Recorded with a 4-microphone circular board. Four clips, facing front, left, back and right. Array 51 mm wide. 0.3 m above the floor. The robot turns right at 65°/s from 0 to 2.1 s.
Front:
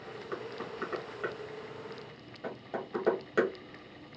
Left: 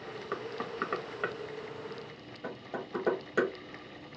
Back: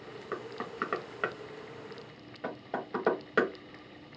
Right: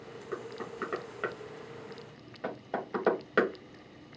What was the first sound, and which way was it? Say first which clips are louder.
Knocking: left 2 dB, back 1 dB; 115° left.